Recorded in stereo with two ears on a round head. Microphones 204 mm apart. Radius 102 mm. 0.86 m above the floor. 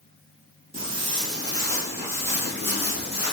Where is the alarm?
I don't hear an alarm.